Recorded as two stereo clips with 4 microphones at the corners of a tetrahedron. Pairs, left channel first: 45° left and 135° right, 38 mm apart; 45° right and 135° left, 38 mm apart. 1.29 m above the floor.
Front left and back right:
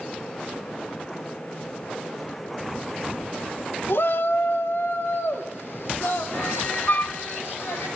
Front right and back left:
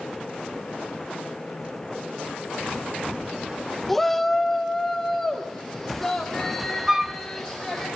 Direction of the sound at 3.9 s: 40° left.